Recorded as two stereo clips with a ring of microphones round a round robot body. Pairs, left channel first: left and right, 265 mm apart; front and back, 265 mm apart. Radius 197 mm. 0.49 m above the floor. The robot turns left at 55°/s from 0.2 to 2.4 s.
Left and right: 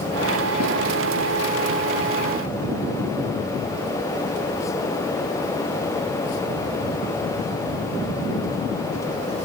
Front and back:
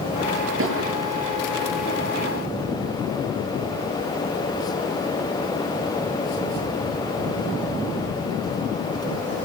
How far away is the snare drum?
About 9 m.